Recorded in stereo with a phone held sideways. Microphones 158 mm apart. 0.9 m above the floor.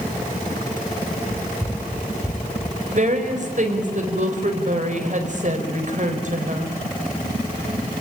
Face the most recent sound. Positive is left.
turn(degrees=-50)  # may be behind; listen again after turning